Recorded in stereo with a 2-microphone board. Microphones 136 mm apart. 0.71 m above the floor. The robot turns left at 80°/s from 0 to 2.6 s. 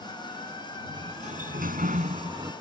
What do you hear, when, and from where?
0.9 s a sliding door: 25° right; by 2.5 s 155° right